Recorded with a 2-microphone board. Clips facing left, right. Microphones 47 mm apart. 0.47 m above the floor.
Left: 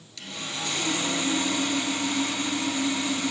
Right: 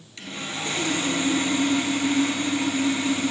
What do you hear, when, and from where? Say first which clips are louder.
0.2 s sawing: right 2 dB; 30° right (ahead or behind), 1.2 m